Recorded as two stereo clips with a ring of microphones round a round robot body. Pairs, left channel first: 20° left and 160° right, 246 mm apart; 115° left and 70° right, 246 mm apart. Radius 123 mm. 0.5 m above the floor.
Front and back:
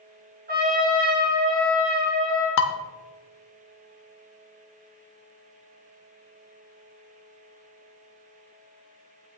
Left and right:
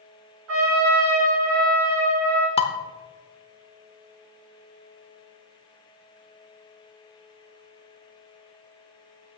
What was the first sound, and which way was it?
A trumpet, 100° right.